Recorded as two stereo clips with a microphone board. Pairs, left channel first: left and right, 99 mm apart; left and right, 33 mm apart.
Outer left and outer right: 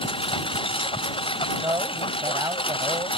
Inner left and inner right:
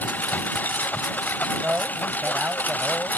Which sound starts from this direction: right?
A man speaking, at 1.6 s.